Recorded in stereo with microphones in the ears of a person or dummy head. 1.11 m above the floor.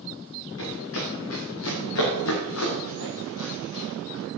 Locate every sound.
0.6 s running footsteps: 80° left, 6.5 m